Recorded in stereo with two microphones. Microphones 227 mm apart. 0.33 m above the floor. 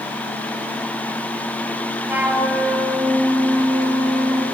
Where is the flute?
5° right (ahead or behind), 3 m.